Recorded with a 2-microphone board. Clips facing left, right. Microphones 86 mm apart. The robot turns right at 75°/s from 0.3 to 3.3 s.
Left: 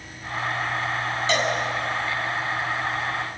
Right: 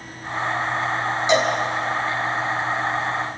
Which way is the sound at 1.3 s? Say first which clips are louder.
Right 5 dB; 20° right (ahead or behind).